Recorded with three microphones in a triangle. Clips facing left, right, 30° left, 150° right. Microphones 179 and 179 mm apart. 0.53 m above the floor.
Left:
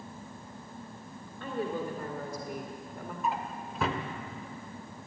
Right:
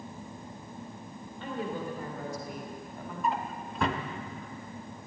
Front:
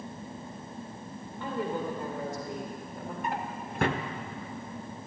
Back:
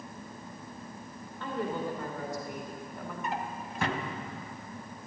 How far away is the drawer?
About 1.1 m.